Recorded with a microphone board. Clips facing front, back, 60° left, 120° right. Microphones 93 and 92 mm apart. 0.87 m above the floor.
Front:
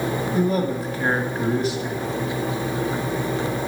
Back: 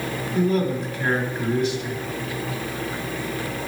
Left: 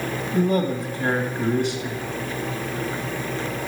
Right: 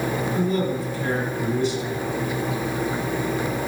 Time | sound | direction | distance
0.3 | a man speaking | 45° left | 1.9 m